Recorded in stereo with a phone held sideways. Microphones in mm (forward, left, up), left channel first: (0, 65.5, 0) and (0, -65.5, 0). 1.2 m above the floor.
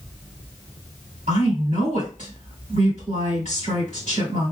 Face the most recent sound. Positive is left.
turn(degrees=-80)